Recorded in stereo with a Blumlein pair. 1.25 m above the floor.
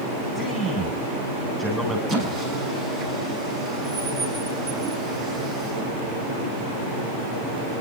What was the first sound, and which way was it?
A man speaking, straight ahead.